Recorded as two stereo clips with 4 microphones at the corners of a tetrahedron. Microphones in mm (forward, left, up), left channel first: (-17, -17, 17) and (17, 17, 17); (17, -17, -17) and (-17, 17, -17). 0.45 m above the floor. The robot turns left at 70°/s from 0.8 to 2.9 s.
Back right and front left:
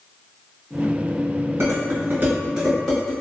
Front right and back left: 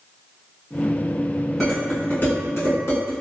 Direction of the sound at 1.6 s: 45° left.